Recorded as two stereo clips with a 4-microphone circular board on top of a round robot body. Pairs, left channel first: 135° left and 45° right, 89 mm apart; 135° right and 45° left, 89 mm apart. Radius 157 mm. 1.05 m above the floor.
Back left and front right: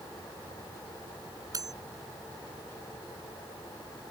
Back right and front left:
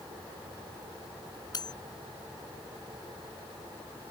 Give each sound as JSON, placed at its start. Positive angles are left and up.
{"t": 1.5, "sound": "cutlery clinking", "azimuth_deg": -95}